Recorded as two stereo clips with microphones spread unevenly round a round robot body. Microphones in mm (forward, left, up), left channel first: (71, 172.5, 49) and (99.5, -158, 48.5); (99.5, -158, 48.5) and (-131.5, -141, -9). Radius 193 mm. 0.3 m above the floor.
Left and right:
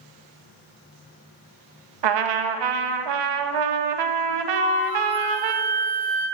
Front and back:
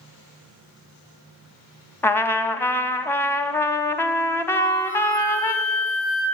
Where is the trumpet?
90° right, 0.9 m.